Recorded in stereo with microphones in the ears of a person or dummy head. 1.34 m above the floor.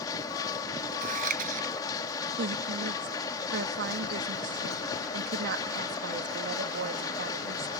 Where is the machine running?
15° left (ahead or behind).